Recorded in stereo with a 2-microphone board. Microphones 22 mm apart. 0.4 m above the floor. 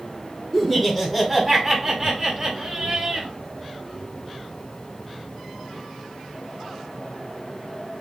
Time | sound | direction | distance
0.5 | laughter | 10° left (ahead or behind) | 1.7 m